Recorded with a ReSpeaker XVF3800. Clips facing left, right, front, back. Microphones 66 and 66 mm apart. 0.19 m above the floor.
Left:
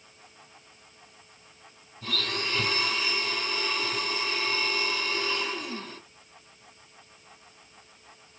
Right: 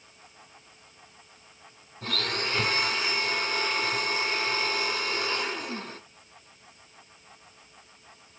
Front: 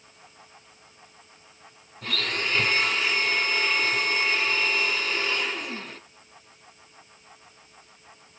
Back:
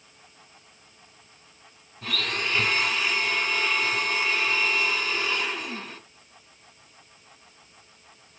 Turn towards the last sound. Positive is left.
turn(degrees=-90)